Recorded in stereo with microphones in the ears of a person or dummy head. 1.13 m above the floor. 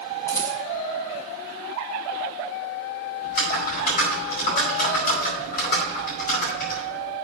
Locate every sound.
0.3 s a rattle: 25° left (ahead or behind), 3.5 m
3.2 s typing on a keyboard: 60° left (ahead or behind), 5 m